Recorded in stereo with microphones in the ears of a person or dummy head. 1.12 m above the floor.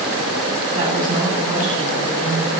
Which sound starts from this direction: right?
A woman speaking, at 0.7 s.